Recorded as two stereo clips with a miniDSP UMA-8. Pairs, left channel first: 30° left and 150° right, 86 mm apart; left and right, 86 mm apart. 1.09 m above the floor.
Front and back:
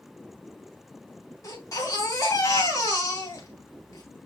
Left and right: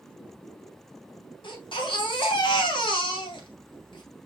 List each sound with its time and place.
1.4 s a baby crying: 80° left, 2.5 m